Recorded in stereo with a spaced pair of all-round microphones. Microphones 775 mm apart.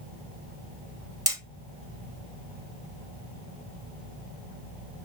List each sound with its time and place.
1.3 s hammering: 5° right (ahead or behind), 0.9 m